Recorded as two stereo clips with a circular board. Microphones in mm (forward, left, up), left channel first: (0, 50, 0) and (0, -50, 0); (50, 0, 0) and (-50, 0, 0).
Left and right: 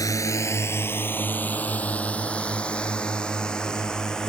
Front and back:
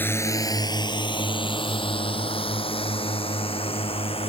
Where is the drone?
60° left; by 4.3 s 5° left.